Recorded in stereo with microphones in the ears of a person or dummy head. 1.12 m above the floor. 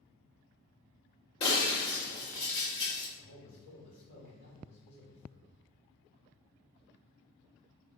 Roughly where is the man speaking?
Left.